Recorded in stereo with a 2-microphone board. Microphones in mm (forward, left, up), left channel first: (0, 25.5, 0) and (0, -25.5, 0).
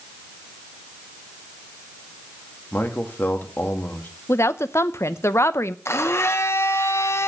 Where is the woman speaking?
65° left (ahead or behind), 0.6 m.